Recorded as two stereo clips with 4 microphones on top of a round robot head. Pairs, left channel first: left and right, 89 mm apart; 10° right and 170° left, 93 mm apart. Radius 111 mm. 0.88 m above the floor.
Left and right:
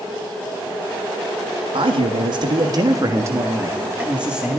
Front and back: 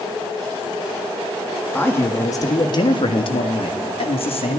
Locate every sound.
1.7 s a man speaking: 80° right, 1.6 m; by 4.6 s 5° right, 2.5 m